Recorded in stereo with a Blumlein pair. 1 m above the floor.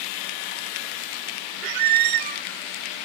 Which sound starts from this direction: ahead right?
A squeak, at 1.6 s.